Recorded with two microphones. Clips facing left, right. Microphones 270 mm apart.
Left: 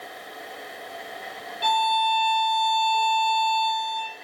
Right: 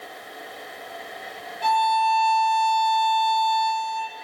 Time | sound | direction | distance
1.6 | a violin | 40° left (ahead or behind) | 3.5 m